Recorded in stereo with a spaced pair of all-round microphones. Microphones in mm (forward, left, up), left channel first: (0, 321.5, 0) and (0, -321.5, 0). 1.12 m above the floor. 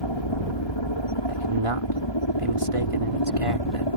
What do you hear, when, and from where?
0.0 s a helicopter: 45° left (ahead or behind); by 4.0 s 40° left (ahead or behind)
1.3 s a man speaking: 55° right (ahead or behind)